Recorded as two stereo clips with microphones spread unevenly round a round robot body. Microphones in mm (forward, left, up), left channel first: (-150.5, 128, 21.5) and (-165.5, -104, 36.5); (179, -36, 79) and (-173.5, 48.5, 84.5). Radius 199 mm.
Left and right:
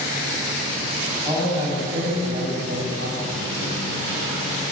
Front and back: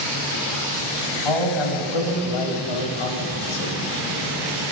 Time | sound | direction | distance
1.2 | a man speaking | 10° right | 6.5 m